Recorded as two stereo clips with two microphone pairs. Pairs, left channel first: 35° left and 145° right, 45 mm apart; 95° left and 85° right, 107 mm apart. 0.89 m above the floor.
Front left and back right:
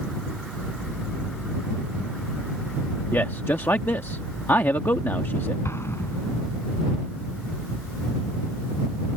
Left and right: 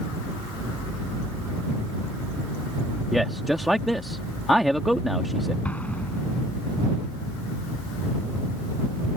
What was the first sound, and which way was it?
A man speaking, 10° left.